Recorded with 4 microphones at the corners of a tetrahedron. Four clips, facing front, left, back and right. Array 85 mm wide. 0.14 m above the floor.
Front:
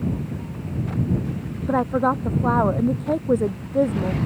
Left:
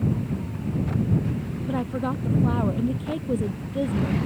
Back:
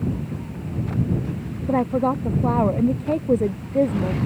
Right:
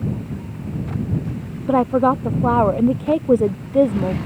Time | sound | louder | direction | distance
1.7 | a woman speaking | right 12 dB, even | 105° right | ?